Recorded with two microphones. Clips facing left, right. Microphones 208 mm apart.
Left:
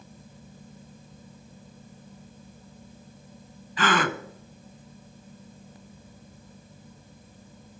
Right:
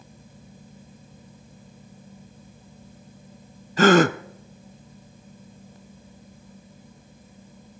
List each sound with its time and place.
3.8 s a gasp: 45° right (ahead or behind), 0.6 m